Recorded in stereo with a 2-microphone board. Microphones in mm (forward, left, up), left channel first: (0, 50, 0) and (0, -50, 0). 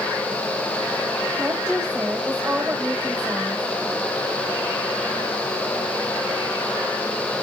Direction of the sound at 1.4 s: 5° right (ahead or behind).